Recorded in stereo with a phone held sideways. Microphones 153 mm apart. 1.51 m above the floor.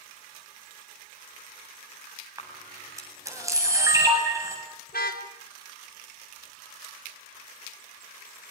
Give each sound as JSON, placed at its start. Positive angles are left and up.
{"t": 2.4, "sound": "a camera shutter", "side_deg": -20, "distance_m": 8.5}
{"t": 4.9, "sound": "a car horn", "side_deg": 70, "distance_m": 3.5}